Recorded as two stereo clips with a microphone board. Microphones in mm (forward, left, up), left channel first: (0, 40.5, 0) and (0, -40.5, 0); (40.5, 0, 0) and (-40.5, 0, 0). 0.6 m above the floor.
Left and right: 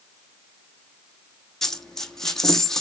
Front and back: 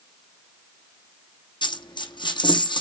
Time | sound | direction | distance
1.6 | a dropped coin | 5° left | 1.7 m